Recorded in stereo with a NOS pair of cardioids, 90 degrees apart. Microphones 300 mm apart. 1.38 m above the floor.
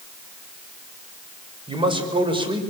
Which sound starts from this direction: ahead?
A man speaking, at 1.7 s.